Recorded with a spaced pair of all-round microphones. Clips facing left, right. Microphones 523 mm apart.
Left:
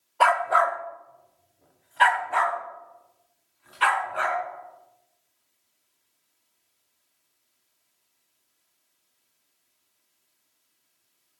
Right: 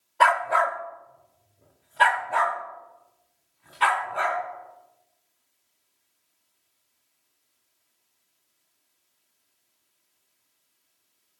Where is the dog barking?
45° right (ahead or behind), 1.2 m; by 4.4 s 75° right (ahead or behind), 3.5 m.